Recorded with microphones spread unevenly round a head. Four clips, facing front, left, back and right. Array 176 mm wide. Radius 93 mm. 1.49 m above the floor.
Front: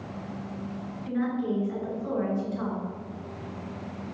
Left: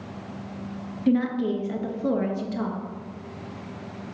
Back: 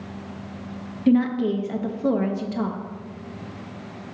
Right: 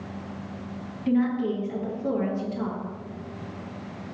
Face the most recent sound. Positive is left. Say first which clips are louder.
# left 1 dB, back 9 dB
turn(degrees=160)